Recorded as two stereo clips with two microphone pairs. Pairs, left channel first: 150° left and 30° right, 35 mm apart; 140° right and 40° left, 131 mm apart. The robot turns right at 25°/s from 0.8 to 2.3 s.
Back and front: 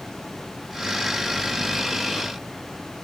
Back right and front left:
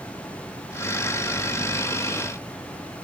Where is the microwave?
No microwave in this recording.